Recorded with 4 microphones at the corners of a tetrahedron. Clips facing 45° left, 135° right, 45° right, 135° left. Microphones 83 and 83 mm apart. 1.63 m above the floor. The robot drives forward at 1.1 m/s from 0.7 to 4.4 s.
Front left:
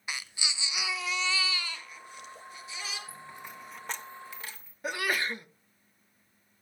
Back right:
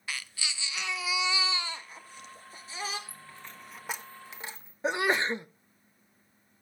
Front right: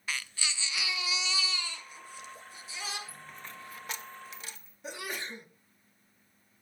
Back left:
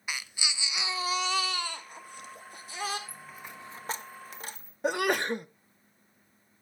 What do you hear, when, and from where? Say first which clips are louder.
0.1 s a baby crying: front left 1 dB, even; 80° left, 0.6 m; by 3.0 s 175° left, 2.5 m
3.1 s a dropped coin: front left 3 dB, back left 1 dB; 35° left, 1.0 m; by 4.7 s 165° left, 1.4 m
4.8 s a sneeze: back right 4 dB, back left 13 dB; 160° left, 0.7 m